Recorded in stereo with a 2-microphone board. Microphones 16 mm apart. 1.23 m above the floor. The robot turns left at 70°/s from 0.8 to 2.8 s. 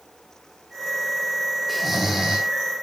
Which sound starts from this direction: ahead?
Snoring, at 1.7 s.